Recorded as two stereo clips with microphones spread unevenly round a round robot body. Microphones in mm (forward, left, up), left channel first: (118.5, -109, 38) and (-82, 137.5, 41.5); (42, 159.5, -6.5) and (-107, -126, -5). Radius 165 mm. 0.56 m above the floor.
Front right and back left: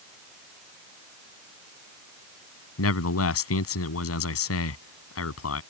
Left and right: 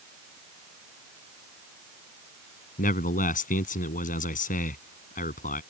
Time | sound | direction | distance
2.8 | a man speaking | 5° right | ?